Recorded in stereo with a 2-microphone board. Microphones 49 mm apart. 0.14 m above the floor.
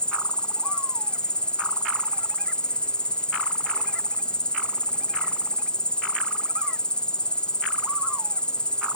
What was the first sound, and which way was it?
An insect, 20° left (ahead or behind).